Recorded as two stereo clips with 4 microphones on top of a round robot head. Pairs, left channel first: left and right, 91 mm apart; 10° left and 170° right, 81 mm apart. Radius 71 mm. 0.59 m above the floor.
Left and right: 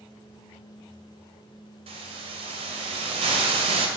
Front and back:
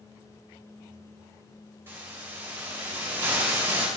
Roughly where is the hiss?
Right.